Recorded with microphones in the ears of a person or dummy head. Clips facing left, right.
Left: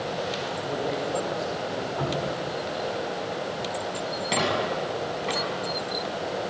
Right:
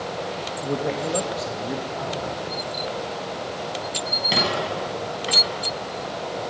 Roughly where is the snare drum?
I don't hear a snare drum.